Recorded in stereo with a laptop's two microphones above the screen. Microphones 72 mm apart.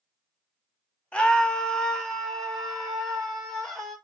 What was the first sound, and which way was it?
A scream, 15° left (ahead or behind).